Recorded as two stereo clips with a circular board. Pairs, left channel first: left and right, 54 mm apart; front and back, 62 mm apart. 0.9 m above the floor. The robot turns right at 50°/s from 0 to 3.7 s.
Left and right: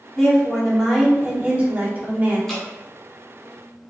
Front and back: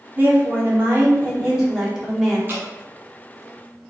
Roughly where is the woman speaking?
Behind.